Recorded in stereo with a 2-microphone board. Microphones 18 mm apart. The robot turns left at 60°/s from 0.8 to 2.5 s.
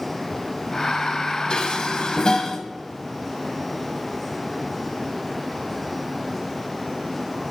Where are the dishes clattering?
60° left (ahead or behind), 1.3 m; by 2.6 s 45° left (ahead or behind), 1.3 m.